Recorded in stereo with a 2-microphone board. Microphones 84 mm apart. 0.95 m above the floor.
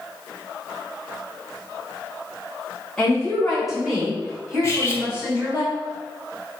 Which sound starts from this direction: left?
Cutlery clinking, at 4.6 s.